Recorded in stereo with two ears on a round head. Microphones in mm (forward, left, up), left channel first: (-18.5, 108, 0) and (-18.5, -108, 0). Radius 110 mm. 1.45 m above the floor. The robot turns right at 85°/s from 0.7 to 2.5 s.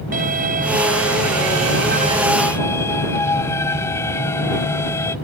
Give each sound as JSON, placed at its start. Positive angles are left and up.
{"t": 0.1, "sound": "an alarm", "azimuth_deg": -140}